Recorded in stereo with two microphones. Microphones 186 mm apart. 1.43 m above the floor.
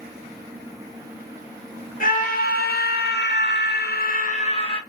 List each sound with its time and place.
2.0 s a scream: 45° left (ahead or behind), 1.2 m; by 4.8 s 25° left (ahead or behind), 0.8 m